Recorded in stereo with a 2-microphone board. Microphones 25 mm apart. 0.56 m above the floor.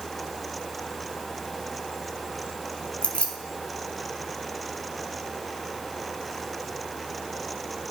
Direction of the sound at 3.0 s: 50° left (ahead or behind).